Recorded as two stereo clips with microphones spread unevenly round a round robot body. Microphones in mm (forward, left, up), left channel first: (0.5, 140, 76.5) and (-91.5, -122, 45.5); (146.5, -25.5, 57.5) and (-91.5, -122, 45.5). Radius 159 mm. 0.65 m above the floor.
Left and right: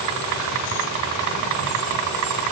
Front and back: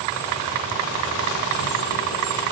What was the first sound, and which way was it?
Only background noise.